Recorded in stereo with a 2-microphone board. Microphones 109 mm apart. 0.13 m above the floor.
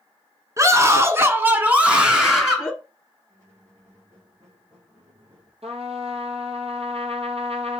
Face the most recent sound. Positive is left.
turn(degrees=-70)  # may be behind; listen again after turning